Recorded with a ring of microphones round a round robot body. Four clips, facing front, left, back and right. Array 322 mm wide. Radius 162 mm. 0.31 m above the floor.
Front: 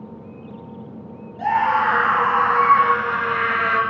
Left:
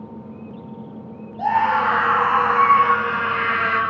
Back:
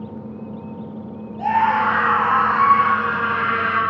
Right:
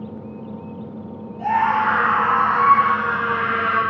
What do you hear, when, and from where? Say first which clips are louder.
1.4 s a scream: even, back 1 dB; 70° left, 7.5 m; by 3.8 s 50° left, 7 m